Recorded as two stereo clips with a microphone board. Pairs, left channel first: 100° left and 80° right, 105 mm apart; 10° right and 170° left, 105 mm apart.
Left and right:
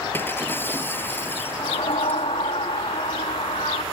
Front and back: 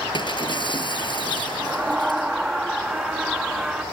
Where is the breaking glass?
30° left.